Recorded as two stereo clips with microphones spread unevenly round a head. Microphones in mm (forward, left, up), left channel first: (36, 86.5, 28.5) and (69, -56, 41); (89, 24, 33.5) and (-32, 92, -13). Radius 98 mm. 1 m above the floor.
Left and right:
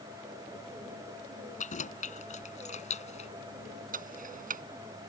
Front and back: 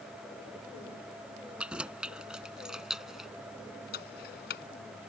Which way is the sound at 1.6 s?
65° left.